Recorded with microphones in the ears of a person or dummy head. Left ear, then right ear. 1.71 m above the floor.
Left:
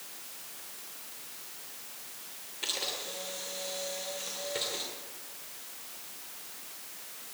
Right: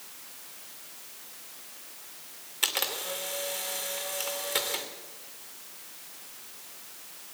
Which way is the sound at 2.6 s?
40° right (ahead or behind).